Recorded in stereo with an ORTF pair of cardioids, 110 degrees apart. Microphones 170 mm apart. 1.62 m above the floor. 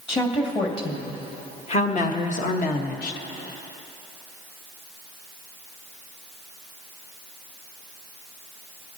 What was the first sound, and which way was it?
A woman speaking, 30° left.